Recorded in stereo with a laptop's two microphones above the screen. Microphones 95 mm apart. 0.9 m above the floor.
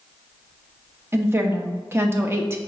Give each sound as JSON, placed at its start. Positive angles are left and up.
{"t": 1.1, "sound": "a woman speaking", "side_deg": -25, "distance_m": 0.7}